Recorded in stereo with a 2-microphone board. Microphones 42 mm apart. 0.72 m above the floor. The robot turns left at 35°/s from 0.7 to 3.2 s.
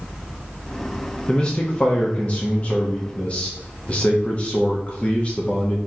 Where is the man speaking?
140° left, 0.8 m; by 5.8 s 70° left, 0.8 m.